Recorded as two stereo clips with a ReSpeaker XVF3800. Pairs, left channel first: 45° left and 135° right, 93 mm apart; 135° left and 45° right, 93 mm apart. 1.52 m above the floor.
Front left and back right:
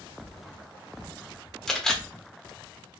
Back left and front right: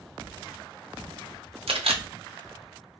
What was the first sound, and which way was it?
A camera shutter, 40° right.